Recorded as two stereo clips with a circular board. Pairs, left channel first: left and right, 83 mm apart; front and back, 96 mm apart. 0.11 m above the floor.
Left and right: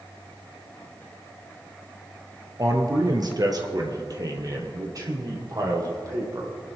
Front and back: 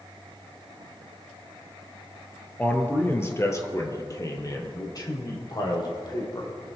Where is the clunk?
I don't hear a clunk.